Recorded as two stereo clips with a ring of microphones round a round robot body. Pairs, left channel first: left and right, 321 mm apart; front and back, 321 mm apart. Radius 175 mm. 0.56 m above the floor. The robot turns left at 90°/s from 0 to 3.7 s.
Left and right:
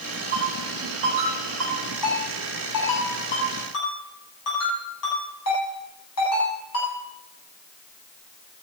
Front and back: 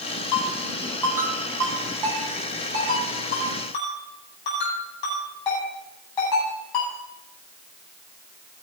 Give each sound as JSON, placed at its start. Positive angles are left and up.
{"t": 0.3, "sound": "a ringtone", "azimuth_deg": -20, "distance_m": 9.0}